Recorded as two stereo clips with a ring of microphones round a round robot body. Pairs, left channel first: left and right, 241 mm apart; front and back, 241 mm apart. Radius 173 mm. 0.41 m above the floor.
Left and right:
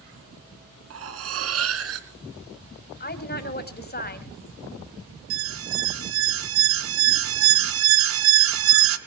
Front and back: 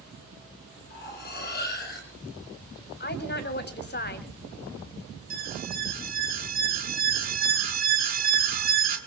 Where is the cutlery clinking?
65° right, 2.5 m.